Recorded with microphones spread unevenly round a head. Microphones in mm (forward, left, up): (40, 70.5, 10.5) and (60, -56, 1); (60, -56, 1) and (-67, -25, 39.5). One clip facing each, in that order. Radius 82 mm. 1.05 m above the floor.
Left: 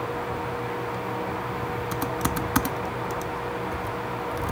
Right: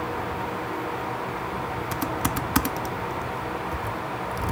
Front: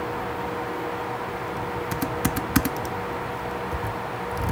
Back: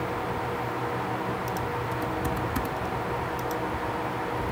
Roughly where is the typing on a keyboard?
Ahead.